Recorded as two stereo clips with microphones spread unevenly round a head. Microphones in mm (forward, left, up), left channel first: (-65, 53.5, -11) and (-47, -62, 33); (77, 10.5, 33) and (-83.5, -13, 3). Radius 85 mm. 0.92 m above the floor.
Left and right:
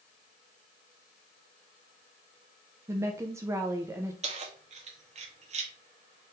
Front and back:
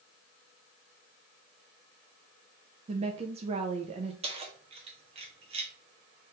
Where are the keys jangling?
115° right, 0.9 m.